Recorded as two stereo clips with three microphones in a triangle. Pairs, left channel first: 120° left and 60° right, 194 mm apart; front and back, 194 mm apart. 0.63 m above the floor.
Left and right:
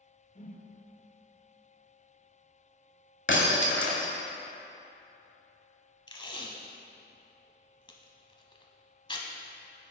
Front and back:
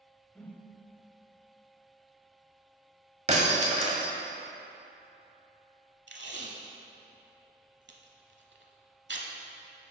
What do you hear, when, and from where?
0.3 s a whoosh: 80° left, 0.8 m
3.3 s breaking glass: 125° left, 1.1 m
6.1 s tape being pulled: 175° right, 0.9 m